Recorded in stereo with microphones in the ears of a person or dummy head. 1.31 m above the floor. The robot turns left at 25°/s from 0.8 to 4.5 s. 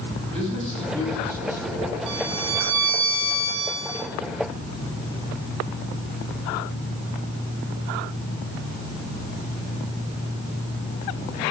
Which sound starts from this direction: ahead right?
A violin, at 2.1 s.